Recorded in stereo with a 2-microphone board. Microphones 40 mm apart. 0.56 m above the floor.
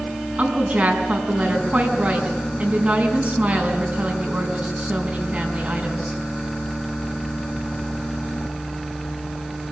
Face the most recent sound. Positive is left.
turn(degrees=-30)  # may be behind; listen again after turning